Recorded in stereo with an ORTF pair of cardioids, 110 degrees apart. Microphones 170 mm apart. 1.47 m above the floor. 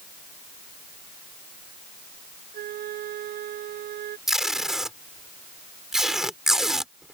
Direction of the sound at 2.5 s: 65° right.